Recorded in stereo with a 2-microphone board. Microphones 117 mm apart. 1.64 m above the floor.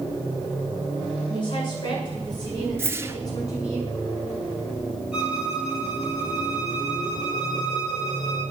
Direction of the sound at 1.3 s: 40° left (ahead or behind).